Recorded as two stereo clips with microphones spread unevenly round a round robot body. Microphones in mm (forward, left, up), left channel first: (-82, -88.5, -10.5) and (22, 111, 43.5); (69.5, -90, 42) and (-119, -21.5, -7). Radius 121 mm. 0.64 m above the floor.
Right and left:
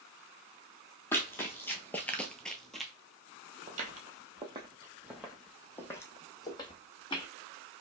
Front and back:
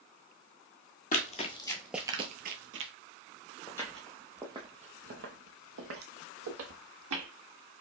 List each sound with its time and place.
1.1 s running footsteps: 25° right, 0.9 m; by 2.9 s 140° left, 0.9 m
3.7 s footsteps: 40° left, 0.9 m; by 7.3 s 170° left, 1.4 m